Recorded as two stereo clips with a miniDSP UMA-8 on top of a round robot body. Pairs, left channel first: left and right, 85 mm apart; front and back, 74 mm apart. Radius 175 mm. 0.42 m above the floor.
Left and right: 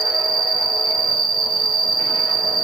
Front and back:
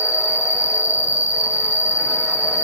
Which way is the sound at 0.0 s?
50° right.